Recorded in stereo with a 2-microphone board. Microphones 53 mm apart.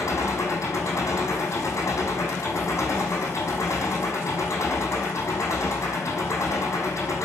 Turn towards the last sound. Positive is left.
turn(degrees=65)  # may be behind; listen again after turning